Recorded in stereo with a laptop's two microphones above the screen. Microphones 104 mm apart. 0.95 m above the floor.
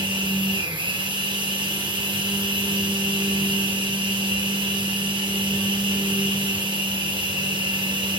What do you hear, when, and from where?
0.0 s a machine running: 55° right (ahead or behind), 3 m